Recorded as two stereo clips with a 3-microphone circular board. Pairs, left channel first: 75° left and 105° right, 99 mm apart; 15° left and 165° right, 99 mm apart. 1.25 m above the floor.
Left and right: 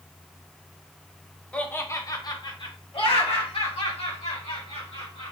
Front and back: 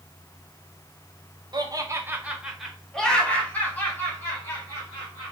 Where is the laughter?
155° left, 0.8 m; by 5.3 s 75° left, 2.5 m.